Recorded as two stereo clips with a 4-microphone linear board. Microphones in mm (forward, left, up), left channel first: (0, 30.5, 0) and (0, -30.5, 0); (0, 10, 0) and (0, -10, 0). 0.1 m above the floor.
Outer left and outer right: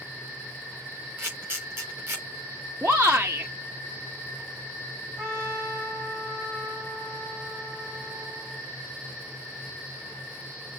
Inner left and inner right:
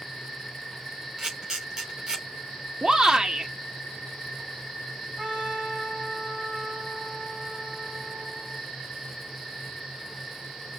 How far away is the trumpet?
About 3.5 m.